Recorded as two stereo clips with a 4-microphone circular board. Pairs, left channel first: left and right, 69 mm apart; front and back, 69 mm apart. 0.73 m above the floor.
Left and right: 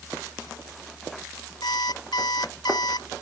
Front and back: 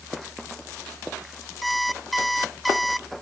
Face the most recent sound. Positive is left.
turn(degrees=90)